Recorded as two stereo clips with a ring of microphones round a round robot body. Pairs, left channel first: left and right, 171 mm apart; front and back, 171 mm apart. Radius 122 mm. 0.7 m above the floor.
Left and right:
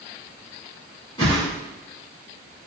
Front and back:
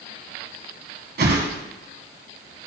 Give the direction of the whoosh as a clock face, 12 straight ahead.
7 o'clock.